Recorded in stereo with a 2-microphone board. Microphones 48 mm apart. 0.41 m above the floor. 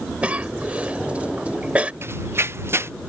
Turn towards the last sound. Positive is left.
turn(degrees=-55)  # may be behind; listen again after turning